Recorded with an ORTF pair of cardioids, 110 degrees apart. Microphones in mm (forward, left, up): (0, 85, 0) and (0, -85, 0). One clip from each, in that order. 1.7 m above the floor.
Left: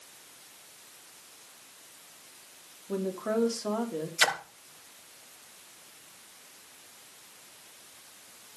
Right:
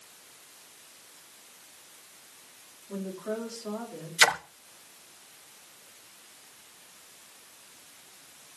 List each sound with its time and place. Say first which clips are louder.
2.9 s a woman speaking: left 5 dB; 45° left, 5 m
4.2 s a splash: right 4 dB; 25° right, 1.3 m